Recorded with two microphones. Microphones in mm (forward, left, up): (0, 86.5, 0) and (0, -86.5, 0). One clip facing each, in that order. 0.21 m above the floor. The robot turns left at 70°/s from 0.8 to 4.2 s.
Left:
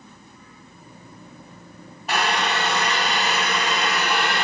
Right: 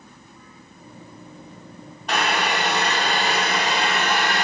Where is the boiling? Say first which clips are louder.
Even; 5° left, 1.3 m; by 4.5 s 145° right, 1.3 m.